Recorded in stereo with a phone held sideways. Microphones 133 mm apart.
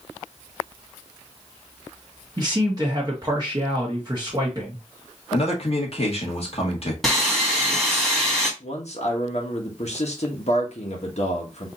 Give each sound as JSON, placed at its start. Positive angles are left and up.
{"t": 2.4, "sound": "a man speaking", "side_deg": -30, "distance_m": 1.2}
{"t": 5.3, "sound": "a man speaking", "side_deg": 50, "distance_m": 1.8}
{"t": 7.0, "sound": "sawing", "side_deg": 0, "distance_m": 1.6}
{"t": 8.6, "sound": "a man speaking", "side_deg": 55, "distance_m": 1.1}